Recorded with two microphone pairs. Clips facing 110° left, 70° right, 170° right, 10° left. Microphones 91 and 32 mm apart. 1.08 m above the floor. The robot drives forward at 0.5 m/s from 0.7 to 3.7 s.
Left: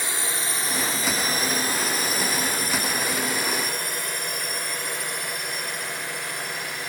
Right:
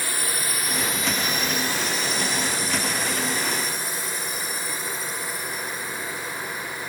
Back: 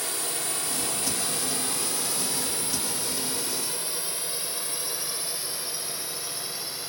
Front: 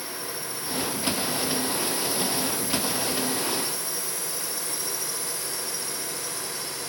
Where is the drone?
Straight behind; by 6.9 s 125° left.